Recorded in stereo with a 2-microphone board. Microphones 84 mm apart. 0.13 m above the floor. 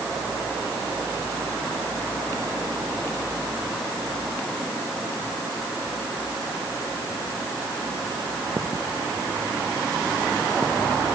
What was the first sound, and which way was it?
Only background noise.